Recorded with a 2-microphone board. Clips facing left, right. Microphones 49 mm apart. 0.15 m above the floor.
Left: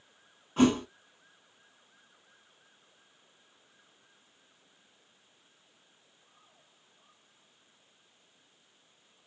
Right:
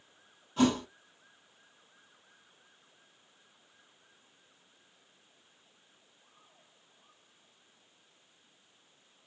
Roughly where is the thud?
Left.